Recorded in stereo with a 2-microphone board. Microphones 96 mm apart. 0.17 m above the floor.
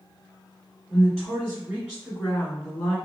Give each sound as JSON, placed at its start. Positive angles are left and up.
{"t": 0.9, "sound": "a woman speaking", "side_deg": -20, "distance_m": 1.7}